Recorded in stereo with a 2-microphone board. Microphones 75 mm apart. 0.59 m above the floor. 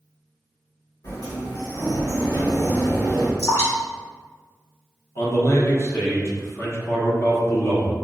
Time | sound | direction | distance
1.0 | a sliding door | 60° left (ahead or behind) | 1.9 m
3.4 | dripping | 50° left (ahead or behind) | 1.8 m
5.2 | a man speaking | 35° left (ahead or behind) | 0.9 m